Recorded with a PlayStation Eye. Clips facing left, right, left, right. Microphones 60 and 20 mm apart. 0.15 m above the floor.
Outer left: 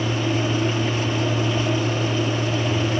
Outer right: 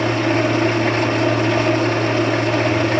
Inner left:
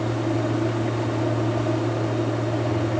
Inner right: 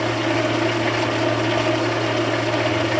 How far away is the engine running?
About 2.5 m.